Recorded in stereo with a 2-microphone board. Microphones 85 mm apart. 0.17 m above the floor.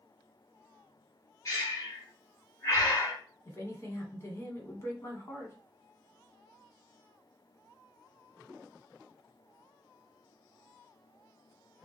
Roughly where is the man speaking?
Left.